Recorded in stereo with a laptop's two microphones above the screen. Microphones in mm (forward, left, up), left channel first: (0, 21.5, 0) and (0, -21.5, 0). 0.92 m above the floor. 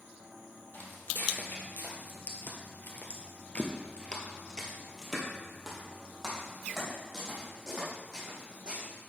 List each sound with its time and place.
0.7 s footsteps: 45° left (ahead or behind), 2.0 m; by 8.8 s 15° right (ahead or behind), 3.5 m